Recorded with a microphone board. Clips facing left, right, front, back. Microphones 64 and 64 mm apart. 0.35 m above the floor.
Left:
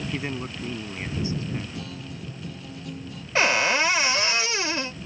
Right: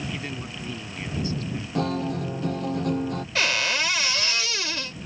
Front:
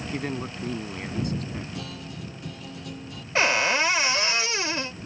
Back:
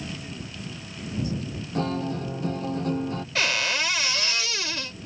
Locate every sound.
0.1 s a man speaking: 25° left
1.8 s a guitar: 130° right
3.4 s a cupboard door: 45° left